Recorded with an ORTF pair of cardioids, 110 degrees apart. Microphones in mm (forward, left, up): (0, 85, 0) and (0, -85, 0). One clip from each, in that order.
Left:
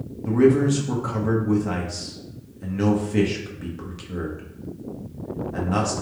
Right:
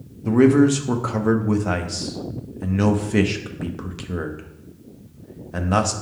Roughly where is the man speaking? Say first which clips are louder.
Right 2 dB; ahead right.